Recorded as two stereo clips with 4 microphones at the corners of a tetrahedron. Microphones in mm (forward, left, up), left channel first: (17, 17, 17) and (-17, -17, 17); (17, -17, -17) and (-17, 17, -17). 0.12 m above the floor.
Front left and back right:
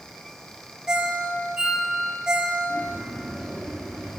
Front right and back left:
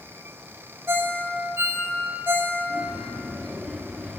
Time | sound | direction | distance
0.9 | a ringtone | 155° left | 2.5 m
2.7 | a bird | 135° left | 7.5 m